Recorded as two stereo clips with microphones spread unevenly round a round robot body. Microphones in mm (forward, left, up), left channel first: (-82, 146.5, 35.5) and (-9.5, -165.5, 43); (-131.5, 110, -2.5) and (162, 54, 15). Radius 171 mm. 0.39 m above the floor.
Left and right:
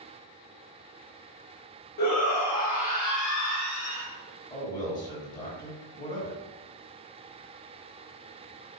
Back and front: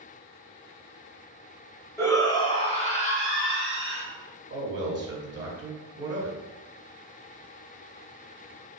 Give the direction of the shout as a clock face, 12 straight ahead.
9 o'clock.